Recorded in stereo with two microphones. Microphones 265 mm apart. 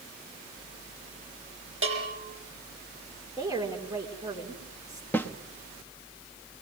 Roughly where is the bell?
Right.